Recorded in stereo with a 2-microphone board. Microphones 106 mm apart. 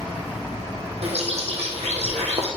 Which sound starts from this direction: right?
A bird, at 1.0 s.